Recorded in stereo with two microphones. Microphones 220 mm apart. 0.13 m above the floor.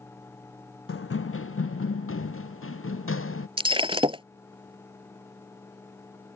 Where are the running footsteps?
75° left (ahead or behind); by 3.5 s 80° left.